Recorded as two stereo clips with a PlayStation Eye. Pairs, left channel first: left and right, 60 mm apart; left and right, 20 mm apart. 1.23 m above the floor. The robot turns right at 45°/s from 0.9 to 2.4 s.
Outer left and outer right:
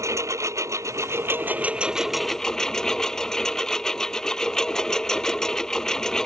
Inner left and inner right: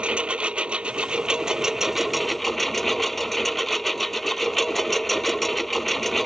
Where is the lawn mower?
60° right; by 6.3 s 10° left.